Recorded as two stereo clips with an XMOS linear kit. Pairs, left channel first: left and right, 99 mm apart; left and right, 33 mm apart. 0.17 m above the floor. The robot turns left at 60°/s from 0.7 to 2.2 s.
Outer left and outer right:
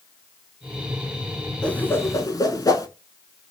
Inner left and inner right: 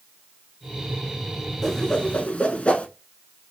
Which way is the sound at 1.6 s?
10° left (ahead or behind).